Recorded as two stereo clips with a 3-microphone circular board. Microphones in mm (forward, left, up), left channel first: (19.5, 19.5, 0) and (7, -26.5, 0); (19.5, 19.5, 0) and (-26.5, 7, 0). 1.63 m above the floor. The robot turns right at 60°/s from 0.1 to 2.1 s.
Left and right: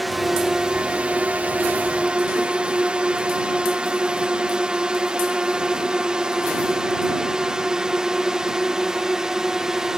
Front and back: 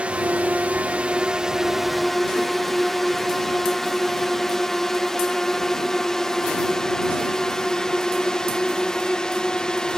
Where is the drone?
165° left; by 10.0 s 40° right.